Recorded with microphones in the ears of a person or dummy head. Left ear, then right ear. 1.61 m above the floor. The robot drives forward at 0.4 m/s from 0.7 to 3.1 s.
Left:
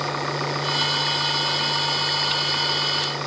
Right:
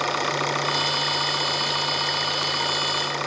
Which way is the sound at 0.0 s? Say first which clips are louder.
Right 2 dB; 85° right.